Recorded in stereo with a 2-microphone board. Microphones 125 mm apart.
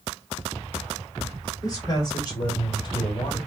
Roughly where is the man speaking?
Left.